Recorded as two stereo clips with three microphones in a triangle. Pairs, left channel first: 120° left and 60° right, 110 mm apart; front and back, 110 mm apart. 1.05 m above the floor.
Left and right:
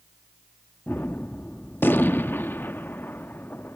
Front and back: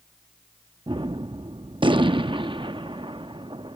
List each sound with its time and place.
0.9 s a gunshot: 175° right